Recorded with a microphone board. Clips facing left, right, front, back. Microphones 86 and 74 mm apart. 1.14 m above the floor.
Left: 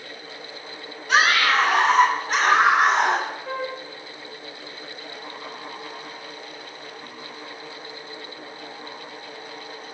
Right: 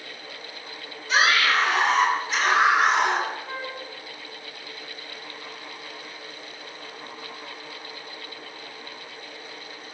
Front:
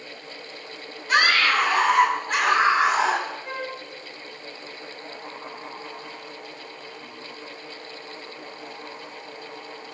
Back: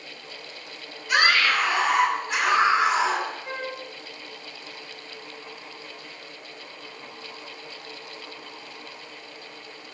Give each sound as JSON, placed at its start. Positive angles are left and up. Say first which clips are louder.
{"t": 1.1, "sound": "a scream", "louder": "left 2 dB, front 1 dB", "azimuth_deg": 55, "distance_m": 8.0}
{"t": 3.5, "sound": "a flute", "louder": "left 5 dB, front 1 dB", "azimuth_deg": 85, "distance_m": 5.5}